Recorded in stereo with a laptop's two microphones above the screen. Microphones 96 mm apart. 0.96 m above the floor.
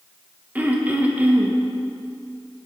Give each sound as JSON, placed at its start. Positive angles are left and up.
{"t": 0.6, "sound": "throat clearing", "side_deg": -15, "distance_m": 0.9}